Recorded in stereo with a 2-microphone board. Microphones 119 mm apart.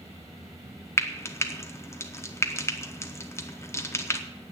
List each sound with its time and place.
1.0 s frying: 25° left (ahead or behind), 1.1 m